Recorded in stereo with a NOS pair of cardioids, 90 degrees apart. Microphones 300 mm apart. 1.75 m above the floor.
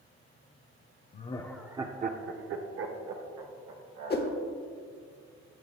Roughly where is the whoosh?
Ahead left.